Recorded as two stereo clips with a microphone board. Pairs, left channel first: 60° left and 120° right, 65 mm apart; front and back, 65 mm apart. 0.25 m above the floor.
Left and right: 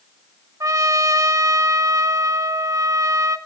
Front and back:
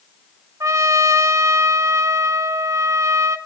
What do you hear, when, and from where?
0.6 s a trumpet: 150° right, 0.9 m